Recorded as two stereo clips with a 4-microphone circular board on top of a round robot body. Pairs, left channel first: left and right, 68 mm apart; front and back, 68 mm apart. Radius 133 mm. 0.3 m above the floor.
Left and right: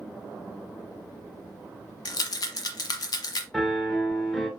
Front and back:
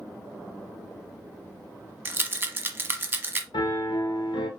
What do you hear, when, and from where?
2.0 s a rattle: 120° left, 1.0 m
3.5 s a piano: 5° left, 1.1 m